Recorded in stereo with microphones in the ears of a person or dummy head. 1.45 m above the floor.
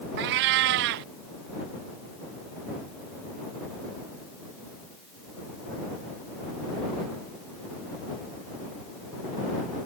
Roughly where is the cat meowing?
Right.